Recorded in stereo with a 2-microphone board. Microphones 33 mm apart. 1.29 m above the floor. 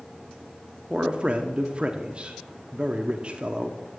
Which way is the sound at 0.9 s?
30° right (ahead or behind).